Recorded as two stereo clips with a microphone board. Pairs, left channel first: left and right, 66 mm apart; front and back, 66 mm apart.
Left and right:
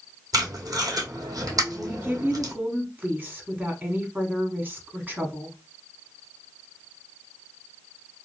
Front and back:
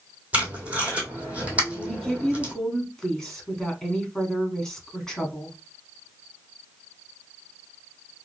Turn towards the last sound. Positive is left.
turn(degrees=-75)